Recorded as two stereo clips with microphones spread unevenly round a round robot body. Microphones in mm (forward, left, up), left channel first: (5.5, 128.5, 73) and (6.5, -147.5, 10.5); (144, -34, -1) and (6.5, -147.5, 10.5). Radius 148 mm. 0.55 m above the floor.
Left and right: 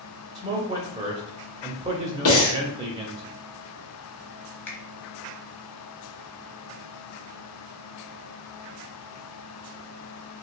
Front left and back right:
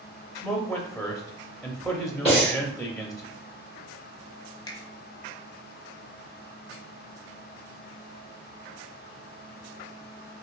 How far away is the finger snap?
About 0.9 m.